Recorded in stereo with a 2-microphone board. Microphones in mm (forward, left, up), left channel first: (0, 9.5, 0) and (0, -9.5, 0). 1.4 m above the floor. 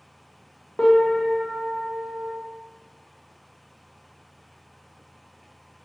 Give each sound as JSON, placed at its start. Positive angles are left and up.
{"t": 0.8, "sound": "a piano", "side_deg": 60, "distance_m": 0.6}